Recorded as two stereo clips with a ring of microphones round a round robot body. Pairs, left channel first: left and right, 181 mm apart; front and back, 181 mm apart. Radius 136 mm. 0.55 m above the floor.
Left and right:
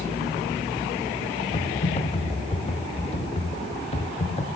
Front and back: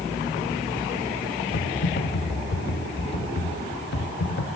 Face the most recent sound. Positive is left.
turn(degrees=30)